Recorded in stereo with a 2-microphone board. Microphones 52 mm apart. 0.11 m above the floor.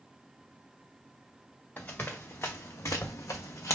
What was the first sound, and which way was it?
Running footsteps, 35° left (ahead or behind).